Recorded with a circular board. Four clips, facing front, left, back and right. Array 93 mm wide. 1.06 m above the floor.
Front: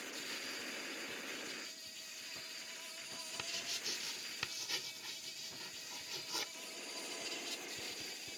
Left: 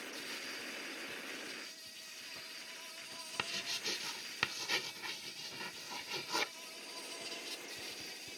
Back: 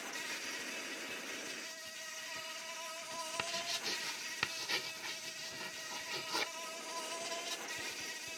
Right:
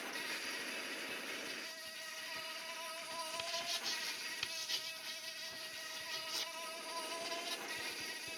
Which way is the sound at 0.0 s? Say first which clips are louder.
Right 2 dB, back 3 dB; 140° right.